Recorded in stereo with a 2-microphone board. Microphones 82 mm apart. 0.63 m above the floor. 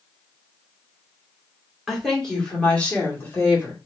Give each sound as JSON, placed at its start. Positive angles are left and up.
{"t": 1.9, "sound": "a woman speaking", "side_deg": 0, "distance_m": 1.8}